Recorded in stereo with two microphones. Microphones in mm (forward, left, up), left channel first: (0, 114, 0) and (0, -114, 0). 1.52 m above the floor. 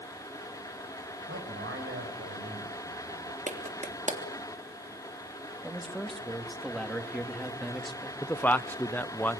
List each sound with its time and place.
1.3 s a man speaking: 65° right (ahead or behind), 7 m; by 3.4 s 85° right, 5.5 m
3.5 s a clap: 35° right (ahead or behind), 3 m
5.6 s a man speaking: centre (ahead or behind), 2.5 m
8.2 s a man speaking: 10° left (ahead or behind), 0.9 m